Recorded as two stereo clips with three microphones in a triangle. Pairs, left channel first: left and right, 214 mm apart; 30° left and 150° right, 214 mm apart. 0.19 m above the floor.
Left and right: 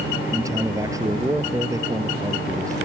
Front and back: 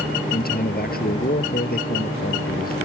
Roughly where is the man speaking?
Ahead.